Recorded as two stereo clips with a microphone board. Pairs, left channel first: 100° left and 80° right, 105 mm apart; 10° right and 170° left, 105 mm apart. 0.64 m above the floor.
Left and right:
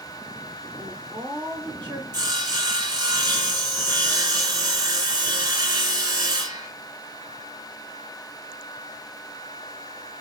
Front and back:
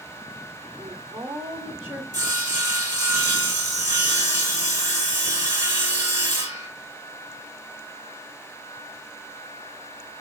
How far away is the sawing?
About 2.5 m.